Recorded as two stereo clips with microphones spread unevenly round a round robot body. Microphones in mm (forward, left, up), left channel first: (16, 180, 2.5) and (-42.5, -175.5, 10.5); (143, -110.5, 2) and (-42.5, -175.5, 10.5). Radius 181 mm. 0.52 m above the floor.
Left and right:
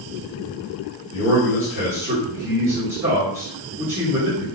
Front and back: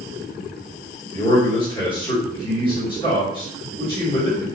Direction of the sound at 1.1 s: 20° right.